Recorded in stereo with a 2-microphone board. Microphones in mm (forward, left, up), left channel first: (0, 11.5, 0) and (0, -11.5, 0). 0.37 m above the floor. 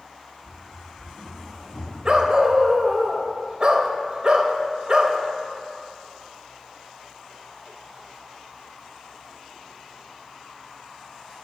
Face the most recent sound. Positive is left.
turn(degrees=-35)  # may be behind; listen again after turning